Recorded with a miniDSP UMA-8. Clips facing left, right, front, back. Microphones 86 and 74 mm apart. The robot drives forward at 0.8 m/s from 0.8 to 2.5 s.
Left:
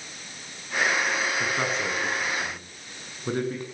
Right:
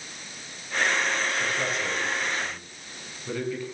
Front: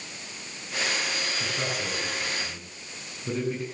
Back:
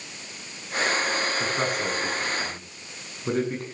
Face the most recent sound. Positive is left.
turn(degrees=140)